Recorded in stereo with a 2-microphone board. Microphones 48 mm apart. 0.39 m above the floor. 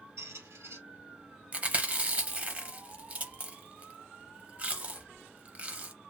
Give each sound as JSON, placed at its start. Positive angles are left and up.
{"t": 0.2, "sound": "a squeak", "side_deg": -80, "distance_m": 1.7}
{"t": 1.5, "sound": "chewing", "side_deg": -30, "distance_m": 0.6}